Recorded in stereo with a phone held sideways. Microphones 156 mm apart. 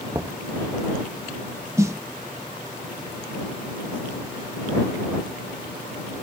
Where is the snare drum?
20° right (ahead or behind).